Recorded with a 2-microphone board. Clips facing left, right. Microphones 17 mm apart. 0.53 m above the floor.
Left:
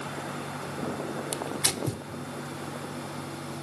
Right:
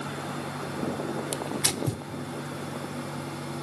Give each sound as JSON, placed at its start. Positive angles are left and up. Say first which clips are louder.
{"t": 1.3, "sound": "tearing paper", "louder": "left 1 dB", "side_deg": -5, "distance_m": 1.0}